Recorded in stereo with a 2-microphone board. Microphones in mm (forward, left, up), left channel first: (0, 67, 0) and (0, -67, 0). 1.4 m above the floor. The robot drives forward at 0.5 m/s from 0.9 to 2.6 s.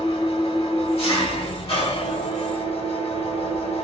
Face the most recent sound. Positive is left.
turn(degrees=45)  # may be behind; listen again after turning